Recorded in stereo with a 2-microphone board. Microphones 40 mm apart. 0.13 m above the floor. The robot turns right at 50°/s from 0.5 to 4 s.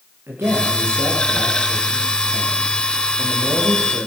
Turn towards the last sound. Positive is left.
turn(degrees=75)